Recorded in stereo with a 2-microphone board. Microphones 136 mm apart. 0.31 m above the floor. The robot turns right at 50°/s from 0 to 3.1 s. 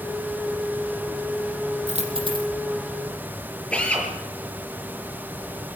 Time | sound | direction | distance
1.9 | a dropped coin | 60° right | 4.5 m
3.7 | a drill | 10° left (ahead or behind) | 6.5 m